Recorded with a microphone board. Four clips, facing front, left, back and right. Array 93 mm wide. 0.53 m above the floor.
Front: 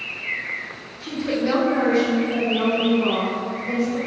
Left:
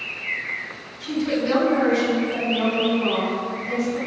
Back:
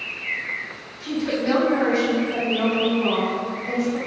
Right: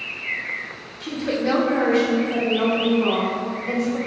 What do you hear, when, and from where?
1.0 s a woman speaking: 90° right, 1.2 m